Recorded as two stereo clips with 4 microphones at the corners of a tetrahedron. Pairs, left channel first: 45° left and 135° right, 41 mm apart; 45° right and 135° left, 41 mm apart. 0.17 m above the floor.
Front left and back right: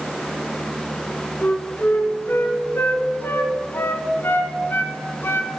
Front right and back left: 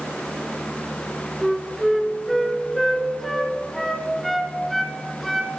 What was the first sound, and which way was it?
A flute, 40° left.